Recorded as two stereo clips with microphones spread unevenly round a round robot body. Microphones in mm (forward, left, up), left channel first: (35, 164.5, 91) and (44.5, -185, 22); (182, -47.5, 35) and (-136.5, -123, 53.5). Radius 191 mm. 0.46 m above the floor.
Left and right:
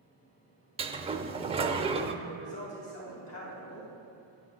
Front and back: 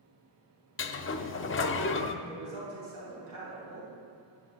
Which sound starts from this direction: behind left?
A woman speaking, at 2.2 s.